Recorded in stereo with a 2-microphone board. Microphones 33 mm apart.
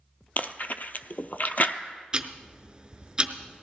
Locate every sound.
0.4 s chewing: 55° left (ahead or behind), 0.7 m
2.1 s ticking: 25° right (ahead or behind), 0.8 m